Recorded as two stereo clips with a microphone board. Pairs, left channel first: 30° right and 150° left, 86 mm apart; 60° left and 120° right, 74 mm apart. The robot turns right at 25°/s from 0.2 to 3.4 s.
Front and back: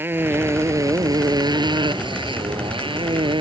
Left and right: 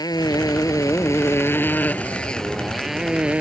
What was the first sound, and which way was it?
A motorcycle, 85° left.